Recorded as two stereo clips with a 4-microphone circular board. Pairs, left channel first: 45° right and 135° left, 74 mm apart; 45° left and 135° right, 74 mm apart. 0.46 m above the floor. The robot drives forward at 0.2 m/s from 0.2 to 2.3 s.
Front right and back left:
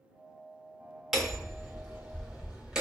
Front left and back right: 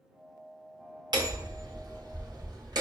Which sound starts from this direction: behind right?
Hammering, at 1.1 s.